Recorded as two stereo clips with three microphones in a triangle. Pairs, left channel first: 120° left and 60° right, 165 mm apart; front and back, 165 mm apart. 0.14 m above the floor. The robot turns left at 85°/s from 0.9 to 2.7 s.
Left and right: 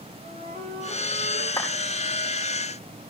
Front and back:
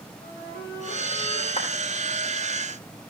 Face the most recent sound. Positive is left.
turn(degrees=-55)